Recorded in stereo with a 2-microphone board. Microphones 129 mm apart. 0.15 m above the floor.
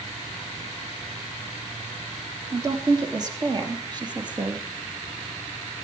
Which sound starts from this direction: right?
A woman speaking, at 2.5 s.